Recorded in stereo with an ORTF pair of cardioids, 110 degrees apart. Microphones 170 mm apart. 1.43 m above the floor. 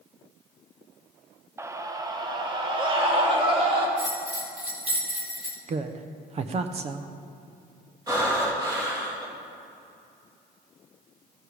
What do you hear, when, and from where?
1.6 s a scream: 15° right, 1.0 m; by 3.9 s 30° right, 3 m
4.0 s a bell: 10° right, 2.5 m
5.7 s a woman speaking: 35° right, 0.7 m
8.1 s breathing: 20° right, 3 m